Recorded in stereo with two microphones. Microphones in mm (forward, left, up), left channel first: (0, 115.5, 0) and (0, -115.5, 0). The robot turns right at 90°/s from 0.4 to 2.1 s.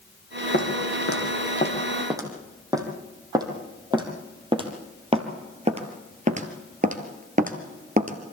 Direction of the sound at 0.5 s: 45° left (ahead or behind).